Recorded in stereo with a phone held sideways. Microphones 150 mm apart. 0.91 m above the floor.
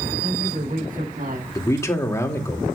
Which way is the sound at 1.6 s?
20° left (ahead or behind).